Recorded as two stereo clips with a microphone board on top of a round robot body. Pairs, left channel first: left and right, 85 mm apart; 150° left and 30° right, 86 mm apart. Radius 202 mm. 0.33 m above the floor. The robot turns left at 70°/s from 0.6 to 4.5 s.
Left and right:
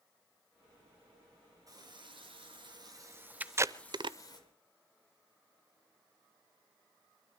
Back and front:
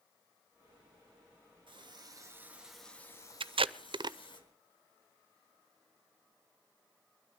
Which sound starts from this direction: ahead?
Tape being pulled, at 3.4 s.